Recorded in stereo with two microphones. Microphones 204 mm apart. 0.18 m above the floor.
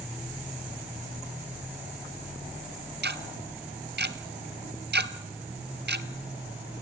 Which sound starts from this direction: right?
Ticking, at 3.0 s.